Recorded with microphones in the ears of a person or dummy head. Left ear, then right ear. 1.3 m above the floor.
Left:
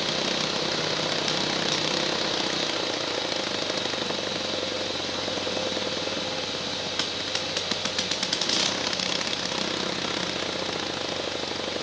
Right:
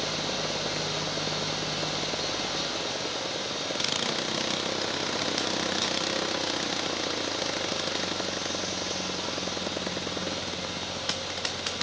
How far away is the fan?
About 1.7 m.